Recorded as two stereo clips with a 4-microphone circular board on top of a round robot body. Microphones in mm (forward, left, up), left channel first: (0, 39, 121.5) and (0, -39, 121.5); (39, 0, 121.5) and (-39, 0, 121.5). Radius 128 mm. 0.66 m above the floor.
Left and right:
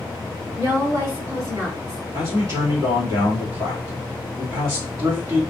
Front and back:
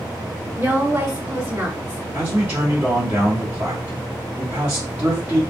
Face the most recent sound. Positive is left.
turn(degrees=-115)